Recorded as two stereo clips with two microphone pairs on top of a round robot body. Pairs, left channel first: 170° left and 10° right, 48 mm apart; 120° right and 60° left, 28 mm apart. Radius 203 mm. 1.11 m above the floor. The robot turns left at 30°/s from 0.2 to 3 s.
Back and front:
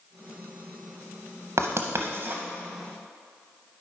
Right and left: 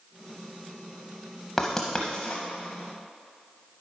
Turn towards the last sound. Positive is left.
turn(degrees=-80)